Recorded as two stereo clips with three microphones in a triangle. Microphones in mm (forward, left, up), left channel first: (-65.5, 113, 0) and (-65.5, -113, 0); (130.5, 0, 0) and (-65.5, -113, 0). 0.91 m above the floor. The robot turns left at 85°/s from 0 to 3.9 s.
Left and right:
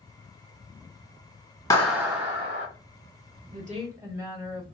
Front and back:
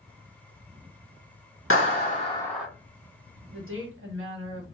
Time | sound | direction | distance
1.7 | a clap | 15° left | 1.5 m
3.5 | a woman speaking | 130° right | 1.2 m